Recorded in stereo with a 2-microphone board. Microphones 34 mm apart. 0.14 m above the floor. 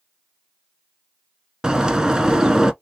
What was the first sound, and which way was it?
A bird, 20° right (ahead or behind).